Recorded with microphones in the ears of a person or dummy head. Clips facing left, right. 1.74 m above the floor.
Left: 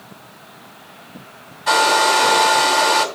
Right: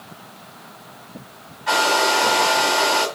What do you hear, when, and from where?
1.7 s a hair dryer: 50° left (ahead or behind), 2.5 m